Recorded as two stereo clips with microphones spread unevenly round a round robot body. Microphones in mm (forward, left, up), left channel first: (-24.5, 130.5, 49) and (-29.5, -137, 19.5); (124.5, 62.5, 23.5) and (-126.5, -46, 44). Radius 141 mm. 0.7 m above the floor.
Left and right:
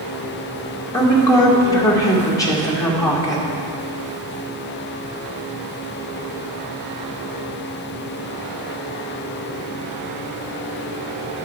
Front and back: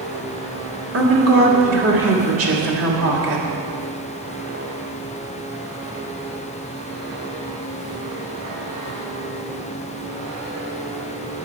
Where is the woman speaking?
170° left, 2 m.